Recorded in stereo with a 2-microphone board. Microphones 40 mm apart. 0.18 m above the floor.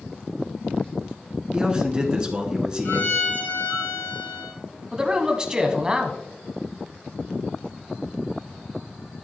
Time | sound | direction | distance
1.5 | a man speaking | 20° right (ahead or behind) | 1.7 m
2.9 | a violin | 55° left (ahead or behind) | 1.7 m
4.9 | a man speaking | 20° right (ahead or behind) | 1.0 m